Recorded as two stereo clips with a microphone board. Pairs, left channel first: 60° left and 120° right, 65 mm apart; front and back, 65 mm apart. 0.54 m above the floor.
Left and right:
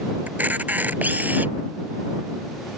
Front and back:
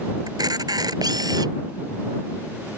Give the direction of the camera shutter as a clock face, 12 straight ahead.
6 o'clock.